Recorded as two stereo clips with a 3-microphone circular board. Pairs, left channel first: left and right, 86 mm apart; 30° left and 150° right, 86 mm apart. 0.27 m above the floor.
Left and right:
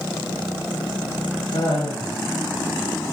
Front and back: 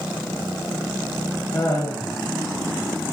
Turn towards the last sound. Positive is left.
turn(degrees=95)